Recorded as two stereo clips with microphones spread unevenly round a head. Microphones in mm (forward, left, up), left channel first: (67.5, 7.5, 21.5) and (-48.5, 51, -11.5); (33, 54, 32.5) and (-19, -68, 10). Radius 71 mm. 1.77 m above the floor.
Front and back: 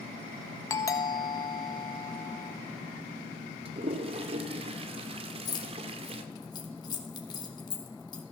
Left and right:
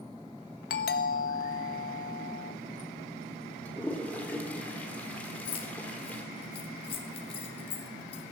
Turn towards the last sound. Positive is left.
turn(degrees=25)